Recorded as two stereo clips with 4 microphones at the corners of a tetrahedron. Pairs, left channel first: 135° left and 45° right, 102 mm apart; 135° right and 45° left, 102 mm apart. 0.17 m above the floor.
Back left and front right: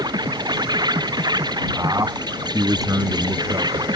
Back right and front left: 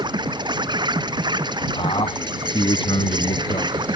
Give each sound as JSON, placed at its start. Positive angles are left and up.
{"t": 0.0, "sound": "an insect", "azimuth_deg": 0}
{"t": 1.8, "sound": "a man speaking", "azimuth_deg": -100}